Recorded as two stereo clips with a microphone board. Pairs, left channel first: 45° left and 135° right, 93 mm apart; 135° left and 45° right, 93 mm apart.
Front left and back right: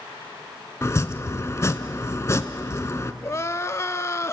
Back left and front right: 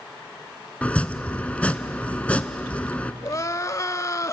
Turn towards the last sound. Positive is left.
turn(degrees=95)